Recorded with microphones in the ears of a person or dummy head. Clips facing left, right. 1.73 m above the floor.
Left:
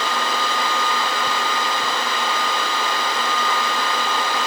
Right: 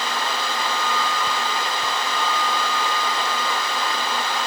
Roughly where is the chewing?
I don't hear chewing.